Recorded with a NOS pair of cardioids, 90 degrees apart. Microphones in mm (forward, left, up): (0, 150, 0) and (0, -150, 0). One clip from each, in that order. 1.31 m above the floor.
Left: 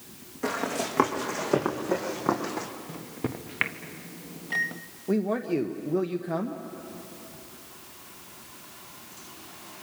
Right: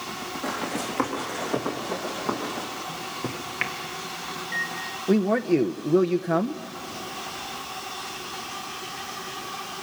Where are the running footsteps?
35° left, 5.5 m; by 2.7 s 45° left, 4.5 m.